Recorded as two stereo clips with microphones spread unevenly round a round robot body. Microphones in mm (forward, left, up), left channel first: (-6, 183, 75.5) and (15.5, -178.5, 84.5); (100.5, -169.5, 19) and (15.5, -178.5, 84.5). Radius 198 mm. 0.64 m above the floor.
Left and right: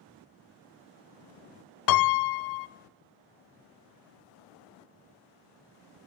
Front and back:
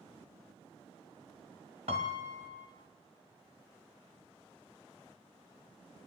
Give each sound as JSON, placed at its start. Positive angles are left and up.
{"t": 1.9, "sound": "a piano", "azimuth_deg": 130, "distance_m": 1.0}